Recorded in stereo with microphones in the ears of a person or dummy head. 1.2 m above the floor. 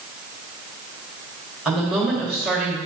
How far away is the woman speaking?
About 2.5 m.